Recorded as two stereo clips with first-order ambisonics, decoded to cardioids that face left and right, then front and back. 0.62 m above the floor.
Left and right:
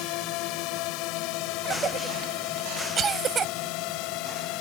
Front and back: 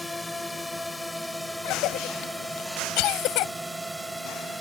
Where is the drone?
80° left; by 4.6 s 95° left.